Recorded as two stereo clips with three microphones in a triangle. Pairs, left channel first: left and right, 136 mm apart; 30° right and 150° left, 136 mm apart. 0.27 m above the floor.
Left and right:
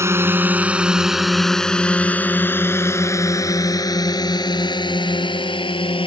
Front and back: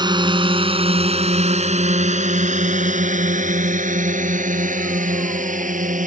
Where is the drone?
160° right; by 6.1 s 140° left.